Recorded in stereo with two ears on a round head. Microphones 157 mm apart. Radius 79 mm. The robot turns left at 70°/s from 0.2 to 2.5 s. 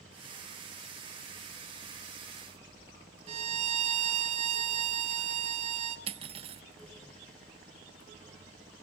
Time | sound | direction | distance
3.3 | a violin | 40° right (ahead or behind) | 1.3 m
6.1 | cutlery clinking | 35° right (ahead or behind) | 0.8 m